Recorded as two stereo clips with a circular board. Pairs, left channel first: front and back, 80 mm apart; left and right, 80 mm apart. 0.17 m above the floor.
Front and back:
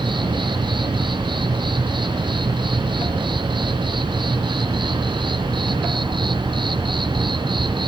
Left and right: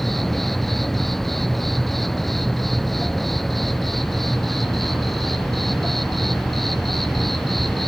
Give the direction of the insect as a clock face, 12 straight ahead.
6 o'clock.